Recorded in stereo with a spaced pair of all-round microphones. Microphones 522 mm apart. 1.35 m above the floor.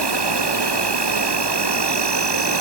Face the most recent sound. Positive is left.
turn(degrees=-50)  # may be behind; listen again after turning